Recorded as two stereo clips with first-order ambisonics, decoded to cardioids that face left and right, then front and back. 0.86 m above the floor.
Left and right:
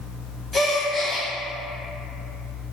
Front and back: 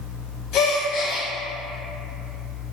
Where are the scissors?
I don't hear scissors.